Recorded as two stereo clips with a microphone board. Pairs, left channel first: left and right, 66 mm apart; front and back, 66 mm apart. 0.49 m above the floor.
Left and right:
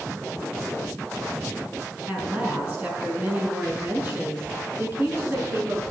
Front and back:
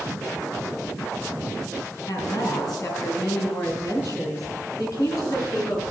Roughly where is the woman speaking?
Ahead right.